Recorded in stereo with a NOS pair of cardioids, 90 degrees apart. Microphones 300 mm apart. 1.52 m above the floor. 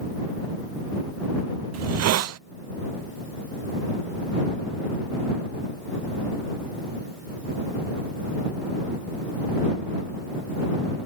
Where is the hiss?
60° right.